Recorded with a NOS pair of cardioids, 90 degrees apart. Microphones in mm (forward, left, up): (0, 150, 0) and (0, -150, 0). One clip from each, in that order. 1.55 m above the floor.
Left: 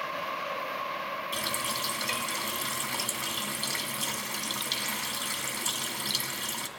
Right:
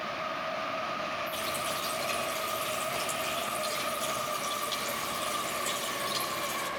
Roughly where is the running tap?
Ahead left.